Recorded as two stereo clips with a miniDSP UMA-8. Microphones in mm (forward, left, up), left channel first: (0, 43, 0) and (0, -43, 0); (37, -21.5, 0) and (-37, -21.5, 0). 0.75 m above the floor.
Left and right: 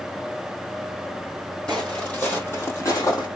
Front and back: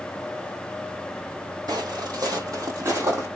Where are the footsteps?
170° left, 1.6 m; by 3.3 s 125° left, 1.7 m.